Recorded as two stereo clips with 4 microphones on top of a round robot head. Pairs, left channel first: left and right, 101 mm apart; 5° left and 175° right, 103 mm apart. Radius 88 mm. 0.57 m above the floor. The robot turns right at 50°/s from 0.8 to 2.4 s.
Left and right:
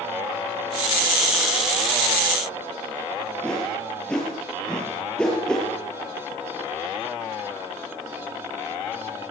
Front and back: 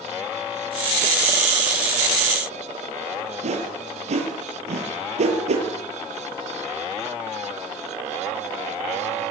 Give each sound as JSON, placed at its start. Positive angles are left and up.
{"t": 3.4, "sound": "a whoosh", "azimuth_deg": 175, "distance_m": 6.0}